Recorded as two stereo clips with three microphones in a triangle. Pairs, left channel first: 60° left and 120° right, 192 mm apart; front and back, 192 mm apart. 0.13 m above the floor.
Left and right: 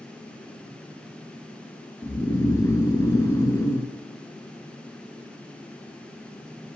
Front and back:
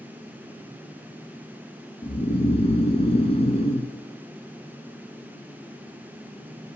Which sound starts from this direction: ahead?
Snoring, at 2.0 s.